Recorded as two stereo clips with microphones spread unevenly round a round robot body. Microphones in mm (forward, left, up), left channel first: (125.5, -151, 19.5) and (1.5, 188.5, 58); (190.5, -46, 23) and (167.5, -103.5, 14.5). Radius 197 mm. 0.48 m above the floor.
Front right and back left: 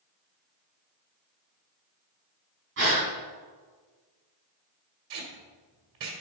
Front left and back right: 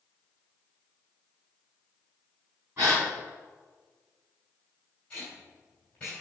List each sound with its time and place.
2.8 s a gasp: 175° left, 4.5 m
5.1 s tape being pulled: 150° left, 2 m